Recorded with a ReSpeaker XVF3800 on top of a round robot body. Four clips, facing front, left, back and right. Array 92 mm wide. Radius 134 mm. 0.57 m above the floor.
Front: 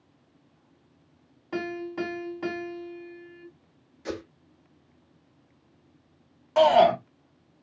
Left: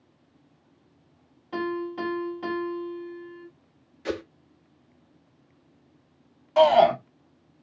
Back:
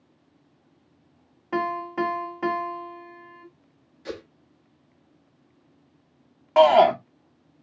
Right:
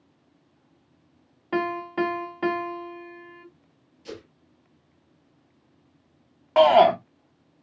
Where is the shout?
130° right, 1.6 m.